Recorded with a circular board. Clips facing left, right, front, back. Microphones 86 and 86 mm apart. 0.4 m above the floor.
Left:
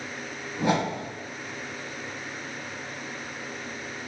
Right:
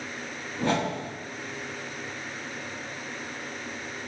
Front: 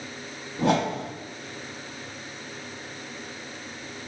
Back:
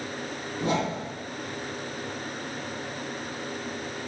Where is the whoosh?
15° left, 0.7 m.